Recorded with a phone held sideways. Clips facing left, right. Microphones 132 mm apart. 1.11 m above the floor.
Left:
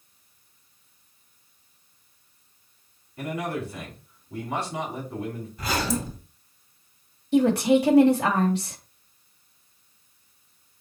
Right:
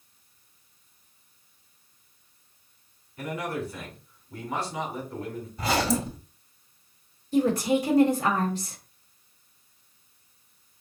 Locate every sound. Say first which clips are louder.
3.2 s a man speaking: left 2 dB; 25° left (ahead or behind), 3 m
5.6 s a zipper: right 2 dB; 25° right (ahead or behind), 1.7 m
7.3 s a woman speaking: left 4 dB; 70° left (ahead or behind), 1.6 m